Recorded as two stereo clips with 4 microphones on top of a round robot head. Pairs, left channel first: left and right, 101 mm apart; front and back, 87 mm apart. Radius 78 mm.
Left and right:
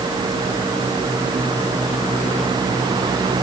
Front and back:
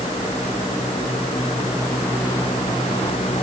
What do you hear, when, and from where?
Only background noise.